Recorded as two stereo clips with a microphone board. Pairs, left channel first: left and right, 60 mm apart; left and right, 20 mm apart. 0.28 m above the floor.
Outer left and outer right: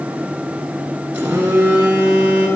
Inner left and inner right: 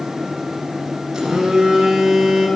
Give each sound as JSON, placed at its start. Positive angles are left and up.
{"t": 1.1, "sound": "a phone buzzing", "side_deg": -25, "distance_m": 8.5}